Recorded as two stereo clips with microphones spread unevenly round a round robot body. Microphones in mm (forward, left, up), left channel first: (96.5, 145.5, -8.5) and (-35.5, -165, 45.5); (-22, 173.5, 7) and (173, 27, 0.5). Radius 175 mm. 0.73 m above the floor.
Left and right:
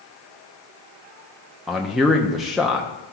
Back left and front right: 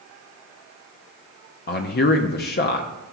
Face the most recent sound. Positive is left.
turn(degrees=145)